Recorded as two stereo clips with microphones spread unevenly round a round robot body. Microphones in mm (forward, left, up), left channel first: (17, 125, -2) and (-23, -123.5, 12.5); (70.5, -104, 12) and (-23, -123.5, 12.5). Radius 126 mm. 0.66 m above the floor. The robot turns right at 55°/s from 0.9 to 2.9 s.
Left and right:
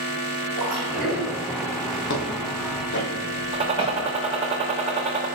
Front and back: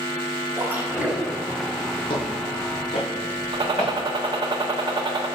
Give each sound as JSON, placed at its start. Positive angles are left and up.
{"t": 0.6, "sound": "a splash", "azimuth_deg": -100, "distance_m": 2.5}
{"t": 2.1, "sound": "footsteps", "azimuth_deg": 45, "distance_m": 1.1}
{"t": 3.5, "sound": "a gunshot", "azimuth_deg": -165, "distance_m": 0.7}